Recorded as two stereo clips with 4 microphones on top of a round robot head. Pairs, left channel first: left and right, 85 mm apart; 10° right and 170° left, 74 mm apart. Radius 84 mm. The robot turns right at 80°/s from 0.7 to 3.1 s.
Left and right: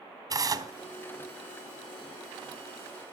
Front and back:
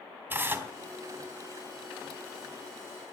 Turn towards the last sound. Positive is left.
turn(degrees=65)